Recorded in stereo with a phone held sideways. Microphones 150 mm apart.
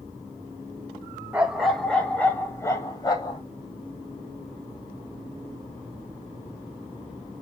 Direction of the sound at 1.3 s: 10° right (ahead or behind).